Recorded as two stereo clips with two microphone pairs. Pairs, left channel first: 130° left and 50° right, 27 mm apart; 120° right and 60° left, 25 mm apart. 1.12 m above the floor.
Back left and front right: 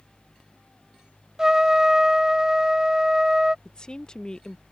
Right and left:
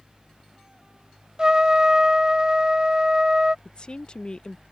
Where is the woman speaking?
170° right.